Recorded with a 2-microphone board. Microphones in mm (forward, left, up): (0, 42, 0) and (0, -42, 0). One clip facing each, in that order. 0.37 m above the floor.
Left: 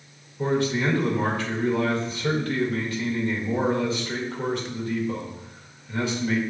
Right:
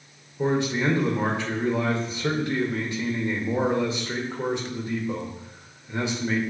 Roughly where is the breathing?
No breathing in this recording.